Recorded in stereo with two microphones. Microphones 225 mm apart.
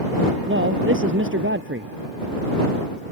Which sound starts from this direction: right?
A man speaking, at 0.5 s.